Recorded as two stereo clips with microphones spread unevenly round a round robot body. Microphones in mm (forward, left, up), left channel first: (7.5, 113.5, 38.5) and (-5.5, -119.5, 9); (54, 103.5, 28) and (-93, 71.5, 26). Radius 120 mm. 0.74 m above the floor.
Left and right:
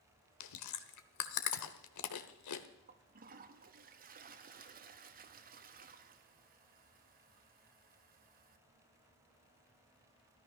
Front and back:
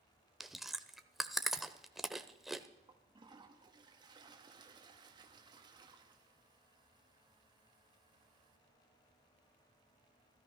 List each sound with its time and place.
0.4 s chewing: 105° left, 1.0 m
2.9 s a toilet flushing: 115° right, 1.1 m